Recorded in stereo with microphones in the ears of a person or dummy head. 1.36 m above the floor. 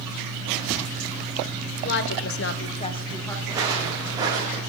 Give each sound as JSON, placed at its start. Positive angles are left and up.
{"t": 1.8, "sound": "a woman speaking", "side_deg": 55, "distance_m": 1.0}
{"t": 3.5, "sound": "footsteps", "side_deg": -20, "distance_m": 4.5}